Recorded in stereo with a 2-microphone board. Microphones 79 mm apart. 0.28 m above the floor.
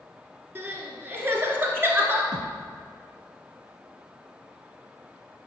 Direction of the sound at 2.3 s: 65° right (ahead or behind).